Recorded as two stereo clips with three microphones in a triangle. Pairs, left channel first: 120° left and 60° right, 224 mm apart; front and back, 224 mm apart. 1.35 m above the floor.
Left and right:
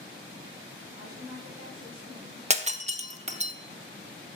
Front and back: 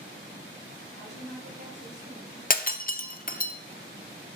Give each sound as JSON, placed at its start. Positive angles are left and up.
{"t": 1.0, "sound": "a woman speaking", "azimuth_deg": 145, "distance_m": 2.0}
{"t": 2.5, "sound": "breaking glass", "azimuth_deg": -20, "distance_m": 0.5}